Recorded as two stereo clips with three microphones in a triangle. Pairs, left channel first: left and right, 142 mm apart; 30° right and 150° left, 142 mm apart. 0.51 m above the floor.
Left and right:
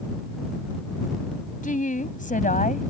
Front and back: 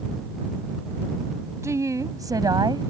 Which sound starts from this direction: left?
A woman speaking, at 1.6 s.